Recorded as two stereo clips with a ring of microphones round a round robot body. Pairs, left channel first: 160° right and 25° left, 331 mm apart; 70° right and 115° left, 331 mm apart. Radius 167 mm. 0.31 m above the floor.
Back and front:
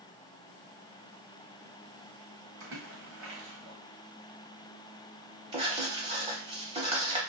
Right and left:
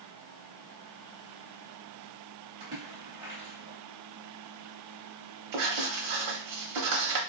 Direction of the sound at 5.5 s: 95° left.